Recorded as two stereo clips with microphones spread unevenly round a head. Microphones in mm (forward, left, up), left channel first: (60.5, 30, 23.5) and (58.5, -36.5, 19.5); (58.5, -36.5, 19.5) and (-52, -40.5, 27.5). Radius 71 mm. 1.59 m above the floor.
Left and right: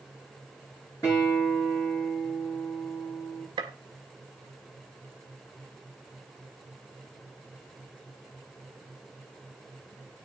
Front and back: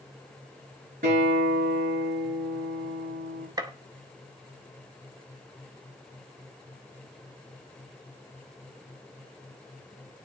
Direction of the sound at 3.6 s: 120° right.